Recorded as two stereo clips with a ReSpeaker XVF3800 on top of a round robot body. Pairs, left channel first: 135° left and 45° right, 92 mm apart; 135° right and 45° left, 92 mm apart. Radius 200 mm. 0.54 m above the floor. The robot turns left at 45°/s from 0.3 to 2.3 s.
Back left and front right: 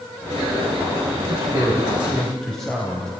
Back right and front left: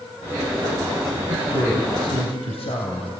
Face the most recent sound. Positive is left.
turn(degrees=-140)